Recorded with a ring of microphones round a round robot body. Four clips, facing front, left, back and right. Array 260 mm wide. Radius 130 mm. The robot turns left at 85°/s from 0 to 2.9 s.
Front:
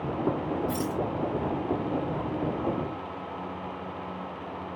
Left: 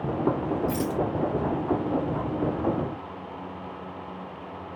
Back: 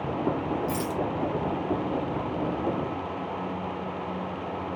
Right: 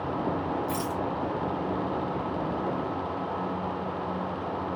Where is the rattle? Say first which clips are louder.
Left 3 dB, back 1 dB; 160° right, 0.9 m; by 1.0 s 170° left, 0.9 m.